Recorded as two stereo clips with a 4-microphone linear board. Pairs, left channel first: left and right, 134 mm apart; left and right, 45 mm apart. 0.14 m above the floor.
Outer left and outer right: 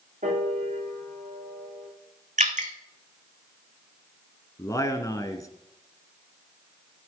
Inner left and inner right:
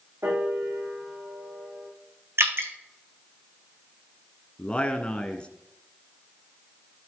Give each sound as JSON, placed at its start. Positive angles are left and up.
{"t": 0.2, "sound": "a piano", "side_deg": -75, "distance_m": 4.5}
{"t": 2.4, "sound": "dripping", "side_deg": -65, "distance_m": 1.4}
{"t": 4.6, "sound": "a man speaking", "side_deg": 25, "distance_m": 1.1}